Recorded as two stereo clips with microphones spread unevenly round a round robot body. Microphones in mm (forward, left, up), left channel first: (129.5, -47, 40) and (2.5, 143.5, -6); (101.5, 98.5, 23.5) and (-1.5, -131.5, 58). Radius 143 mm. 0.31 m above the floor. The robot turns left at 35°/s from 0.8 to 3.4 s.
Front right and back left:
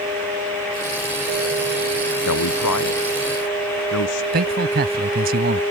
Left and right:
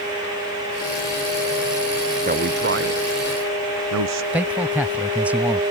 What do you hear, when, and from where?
2.3 s a man speaking: 55° right; by 4.2 s 95° right
4.3 s a man speaking: 155° left